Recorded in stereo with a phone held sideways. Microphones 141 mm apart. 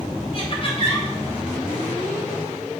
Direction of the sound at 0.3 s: 45° left (ahead or behind).